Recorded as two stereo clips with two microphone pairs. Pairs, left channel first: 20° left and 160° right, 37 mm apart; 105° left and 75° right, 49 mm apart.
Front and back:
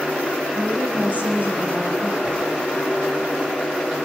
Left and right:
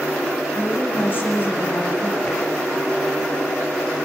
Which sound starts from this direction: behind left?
A woman speaking, at 0.6 s.